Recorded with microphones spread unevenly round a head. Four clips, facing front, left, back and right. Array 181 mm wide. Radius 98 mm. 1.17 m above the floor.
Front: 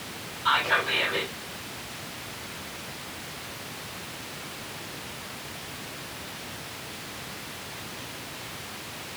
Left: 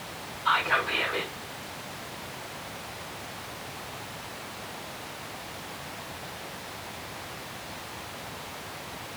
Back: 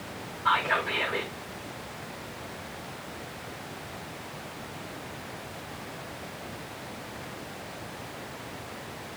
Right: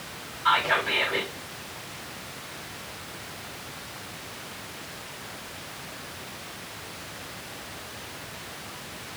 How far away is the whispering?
About 7 m.